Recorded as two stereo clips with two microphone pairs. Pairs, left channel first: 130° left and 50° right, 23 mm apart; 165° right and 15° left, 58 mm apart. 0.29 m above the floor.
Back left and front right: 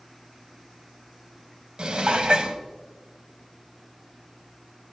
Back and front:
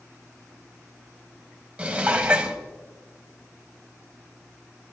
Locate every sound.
1.8 s dishes clattering: 45° right, 1.0 m